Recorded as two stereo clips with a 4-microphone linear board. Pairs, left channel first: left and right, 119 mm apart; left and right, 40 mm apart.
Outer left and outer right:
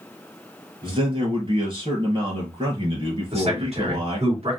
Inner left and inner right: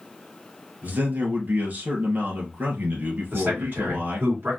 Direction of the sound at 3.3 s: 60° right (ahead or behind).